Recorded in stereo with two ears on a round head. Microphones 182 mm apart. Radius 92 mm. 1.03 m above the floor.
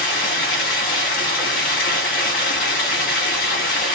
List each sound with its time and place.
0.0 s running water: 45° left (ahead or behind), 1.6 m